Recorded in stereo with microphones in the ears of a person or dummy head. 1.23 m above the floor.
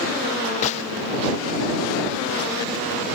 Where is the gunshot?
35° left (ahead or behind).